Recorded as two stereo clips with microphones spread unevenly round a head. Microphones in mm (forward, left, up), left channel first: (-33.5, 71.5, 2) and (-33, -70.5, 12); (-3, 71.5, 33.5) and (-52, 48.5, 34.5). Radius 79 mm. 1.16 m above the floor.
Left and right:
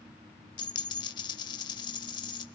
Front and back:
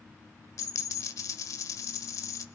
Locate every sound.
0.6 s a dropped coin: 30° left, 1.4 m